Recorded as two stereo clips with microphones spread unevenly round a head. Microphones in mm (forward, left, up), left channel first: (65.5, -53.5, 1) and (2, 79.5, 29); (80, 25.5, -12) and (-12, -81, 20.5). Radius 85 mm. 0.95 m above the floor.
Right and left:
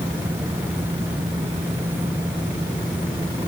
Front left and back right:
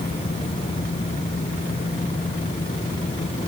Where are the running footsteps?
No running footsteps in this recording.